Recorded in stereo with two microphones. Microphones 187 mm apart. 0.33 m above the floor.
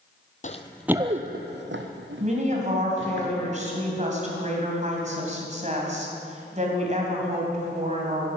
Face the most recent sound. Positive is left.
turn(degrees=-40)  # may be behind; listen again after turning